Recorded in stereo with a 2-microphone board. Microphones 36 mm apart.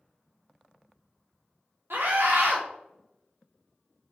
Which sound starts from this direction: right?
A scream, at 1.9 s.